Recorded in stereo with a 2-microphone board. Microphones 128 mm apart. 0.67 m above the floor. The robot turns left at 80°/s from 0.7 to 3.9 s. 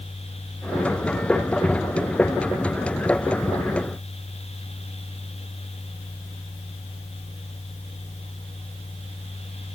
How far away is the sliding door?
I don't hear a sliding door.